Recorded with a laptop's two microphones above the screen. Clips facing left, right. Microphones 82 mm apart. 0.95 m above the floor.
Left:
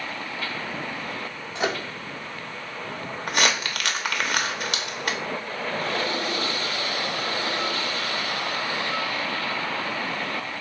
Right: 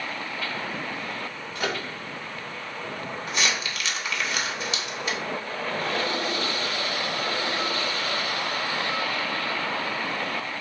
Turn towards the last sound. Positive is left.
turn(degrees=55)  # may be behind; listen again after turning